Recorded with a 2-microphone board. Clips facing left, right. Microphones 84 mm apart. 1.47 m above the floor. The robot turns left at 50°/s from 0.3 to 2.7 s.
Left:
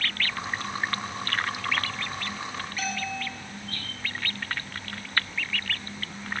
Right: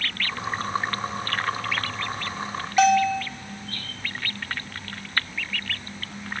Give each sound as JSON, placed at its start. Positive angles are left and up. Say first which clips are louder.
{"t": 2.8, "sound": "a bell", "louder": "right 16 dB", "side_deg": -85, "distance_m": 1.5}